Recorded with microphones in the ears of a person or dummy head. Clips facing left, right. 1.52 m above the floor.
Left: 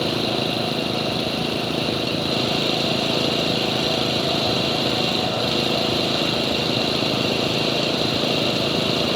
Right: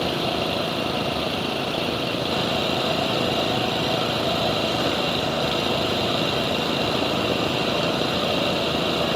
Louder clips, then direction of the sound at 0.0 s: Left 2 dB; 20° left (ahead or behind).